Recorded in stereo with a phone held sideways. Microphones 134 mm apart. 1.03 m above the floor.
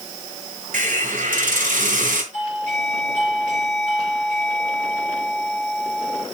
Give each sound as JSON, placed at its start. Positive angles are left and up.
{"t": 0.7, "sound": "a hiss", "side_deg": -80, "distance_m": 3.0}
{"t": 2.3, "sound": "a doorbell", "side_deg": -65, "distance_m": 8.0}